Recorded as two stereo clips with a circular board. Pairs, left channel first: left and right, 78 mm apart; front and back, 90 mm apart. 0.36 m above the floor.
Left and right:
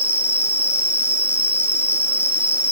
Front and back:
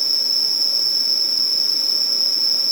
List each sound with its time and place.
0.0 s an insect: 140° left, 1.1 m